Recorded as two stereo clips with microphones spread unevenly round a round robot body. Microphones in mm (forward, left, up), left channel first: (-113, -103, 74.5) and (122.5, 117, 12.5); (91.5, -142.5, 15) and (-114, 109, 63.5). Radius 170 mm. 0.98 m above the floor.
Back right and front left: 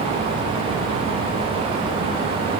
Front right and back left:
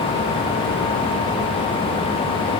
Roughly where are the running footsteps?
I don't hear running footsteps.